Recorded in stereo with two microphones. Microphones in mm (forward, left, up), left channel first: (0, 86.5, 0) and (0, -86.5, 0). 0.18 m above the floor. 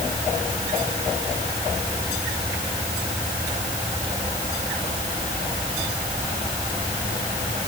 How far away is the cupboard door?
No cupboard door in this recording.